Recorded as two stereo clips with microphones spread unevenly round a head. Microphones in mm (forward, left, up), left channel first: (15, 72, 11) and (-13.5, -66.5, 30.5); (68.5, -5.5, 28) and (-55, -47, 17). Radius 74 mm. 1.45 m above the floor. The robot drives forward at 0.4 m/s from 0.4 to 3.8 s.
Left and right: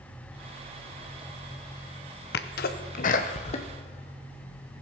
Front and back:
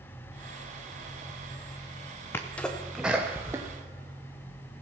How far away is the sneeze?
About 0.8 m.